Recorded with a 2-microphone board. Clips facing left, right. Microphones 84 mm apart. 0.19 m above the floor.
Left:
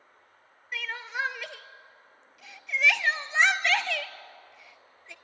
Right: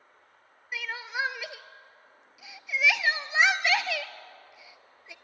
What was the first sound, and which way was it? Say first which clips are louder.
Crying: even; 5° right (ahead or behind).